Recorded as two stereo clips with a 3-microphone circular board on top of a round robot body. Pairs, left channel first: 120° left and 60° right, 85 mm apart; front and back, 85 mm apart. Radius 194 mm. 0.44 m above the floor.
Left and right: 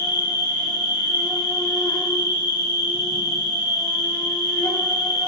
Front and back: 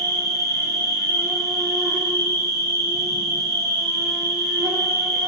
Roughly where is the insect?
Behind left.